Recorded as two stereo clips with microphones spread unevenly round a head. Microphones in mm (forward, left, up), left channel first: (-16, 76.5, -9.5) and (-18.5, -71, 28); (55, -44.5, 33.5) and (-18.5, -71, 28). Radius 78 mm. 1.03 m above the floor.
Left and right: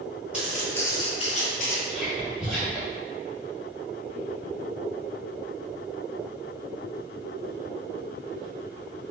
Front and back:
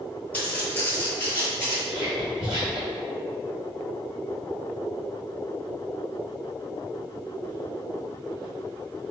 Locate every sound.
0.3 s footsteps: 30° right, 1.2 m; by 1.8 s 75° left, 1.3 m
1.9 s whispering: 165° left, 1.3 m